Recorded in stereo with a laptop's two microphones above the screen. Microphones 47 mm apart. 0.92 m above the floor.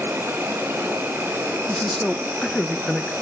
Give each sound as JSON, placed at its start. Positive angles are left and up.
{"t": 0.0, "sound": "an insect", "side_deg": -60, "distance_m": 2.0}
{"t": 1.7, "sound": "a man speaking", "side_deg": 20, "distance_m": 0.6}